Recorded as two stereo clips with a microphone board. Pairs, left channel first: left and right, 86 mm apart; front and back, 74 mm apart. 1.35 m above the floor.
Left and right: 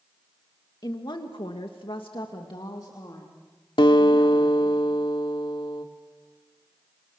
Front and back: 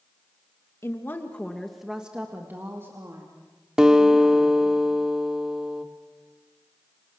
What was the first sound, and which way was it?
A woman speaking, 50° left.